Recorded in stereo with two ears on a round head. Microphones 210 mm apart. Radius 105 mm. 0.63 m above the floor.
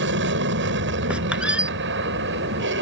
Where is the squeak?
5° right (ahead or behind).